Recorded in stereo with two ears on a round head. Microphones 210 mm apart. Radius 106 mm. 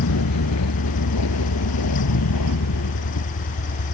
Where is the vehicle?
75° left (ahead or behind).